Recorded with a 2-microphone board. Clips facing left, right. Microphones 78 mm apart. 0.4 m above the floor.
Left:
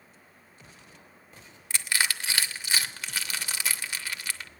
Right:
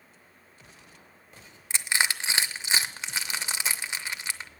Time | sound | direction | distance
1.7 | crushing | 25° right (ahead or behind) | 0.6 m